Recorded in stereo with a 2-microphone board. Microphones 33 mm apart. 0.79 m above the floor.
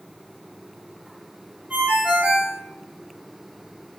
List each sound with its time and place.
1.7 s a ringtone: 50° right (ahead or behind), 1.4 m